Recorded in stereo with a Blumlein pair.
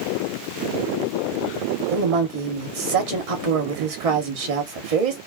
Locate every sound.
1.9 s a woman speaking: 50° right, 1.3 m